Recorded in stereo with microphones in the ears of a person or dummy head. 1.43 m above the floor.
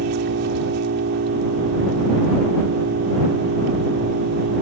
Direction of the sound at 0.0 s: 70° right (ahead or behind).